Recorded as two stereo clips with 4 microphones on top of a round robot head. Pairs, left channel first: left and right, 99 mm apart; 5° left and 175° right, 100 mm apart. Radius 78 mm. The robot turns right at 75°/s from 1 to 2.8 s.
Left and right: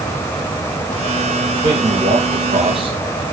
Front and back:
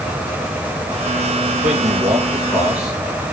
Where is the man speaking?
145° right, 2.5 m; by 3.2 s 55° right, 2.5 m.